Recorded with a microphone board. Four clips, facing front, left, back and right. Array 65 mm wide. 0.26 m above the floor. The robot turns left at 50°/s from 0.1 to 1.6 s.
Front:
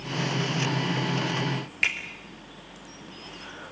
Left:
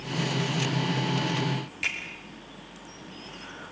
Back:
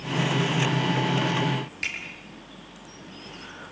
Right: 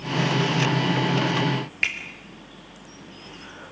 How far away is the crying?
I don't hear crying.